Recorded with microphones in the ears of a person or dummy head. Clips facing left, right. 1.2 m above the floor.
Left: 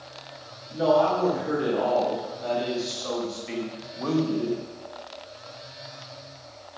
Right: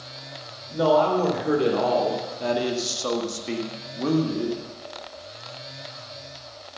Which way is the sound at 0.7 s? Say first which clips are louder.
Right 1 dB; 80° right.